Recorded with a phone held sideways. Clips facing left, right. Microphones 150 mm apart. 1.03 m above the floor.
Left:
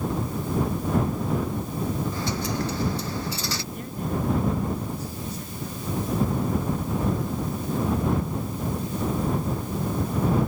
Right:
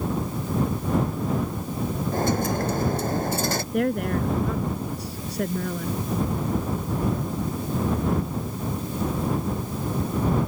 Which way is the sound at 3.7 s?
75° right (ahead or behind).